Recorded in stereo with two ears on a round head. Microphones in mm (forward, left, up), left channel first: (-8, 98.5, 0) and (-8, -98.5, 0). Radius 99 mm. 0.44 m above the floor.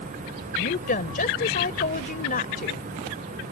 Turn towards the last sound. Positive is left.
turn(degrees=40)  # may be behind; listen again after turning